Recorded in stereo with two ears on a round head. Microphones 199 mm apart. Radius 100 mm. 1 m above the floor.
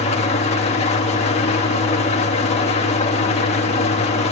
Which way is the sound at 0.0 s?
30° left (ahead or behind).